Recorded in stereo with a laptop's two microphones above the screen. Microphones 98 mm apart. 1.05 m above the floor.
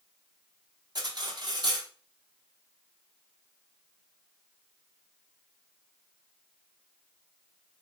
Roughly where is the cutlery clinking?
Right.